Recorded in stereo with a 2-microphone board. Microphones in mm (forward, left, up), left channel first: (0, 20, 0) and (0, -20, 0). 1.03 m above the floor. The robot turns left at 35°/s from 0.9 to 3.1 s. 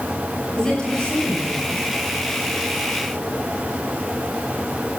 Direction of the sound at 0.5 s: 165° left.